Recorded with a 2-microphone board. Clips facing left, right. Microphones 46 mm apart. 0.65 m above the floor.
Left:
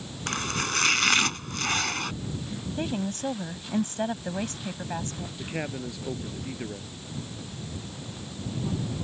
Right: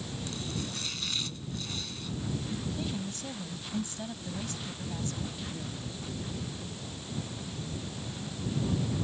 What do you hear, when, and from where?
0.3 s chopping: 65° left (ahead or behind)
2.8 s a woman speaking: 50° left (ahead or behind)
5.4 s a man speaking: 65° left (ahead or behind)